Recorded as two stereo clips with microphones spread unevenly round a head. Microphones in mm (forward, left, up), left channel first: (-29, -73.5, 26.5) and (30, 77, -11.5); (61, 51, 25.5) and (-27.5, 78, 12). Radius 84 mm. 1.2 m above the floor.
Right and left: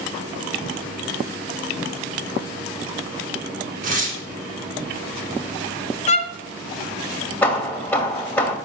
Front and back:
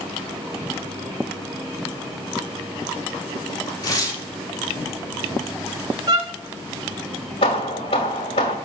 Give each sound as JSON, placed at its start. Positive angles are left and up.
{"t": 3.8, "sound": "tearing paper", "azimuth_deg": 30, "distance_m": 3.5}
{"t": 6.1, "sound": "a violin", "azimuth_deg": -130, "distance_m": 0.8}
{"t": 7.4, "sound": "hammering", "azimuth_deg": -40, "distance_m": 1.8}